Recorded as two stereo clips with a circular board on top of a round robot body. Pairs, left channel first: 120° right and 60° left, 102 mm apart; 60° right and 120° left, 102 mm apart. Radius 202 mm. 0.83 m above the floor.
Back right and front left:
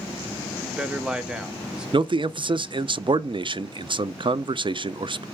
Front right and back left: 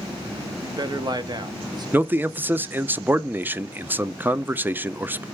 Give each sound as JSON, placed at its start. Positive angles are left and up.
{"t": 0.6, "sound": "a man speaking", "azimuth_deg": 140, "distance_m": 1.0}
{"t": 1.9, "sound": "a man speaking", "azimuth_deg": 55, "distance_m": 0.6}